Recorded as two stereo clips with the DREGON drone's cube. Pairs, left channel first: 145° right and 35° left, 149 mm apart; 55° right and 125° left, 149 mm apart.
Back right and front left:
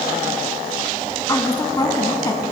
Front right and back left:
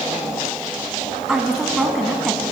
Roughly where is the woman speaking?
Behind right.